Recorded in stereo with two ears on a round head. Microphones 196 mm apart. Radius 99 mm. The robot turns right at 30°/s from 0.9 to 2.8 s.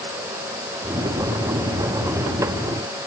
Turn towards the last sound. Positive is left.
No sound to turn to.